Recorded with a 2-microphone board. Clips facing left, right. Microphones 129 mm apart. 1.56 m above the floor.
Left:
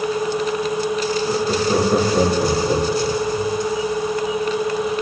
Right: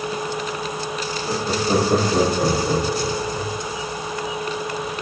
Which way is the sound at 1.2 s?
25° right (ahead or behind).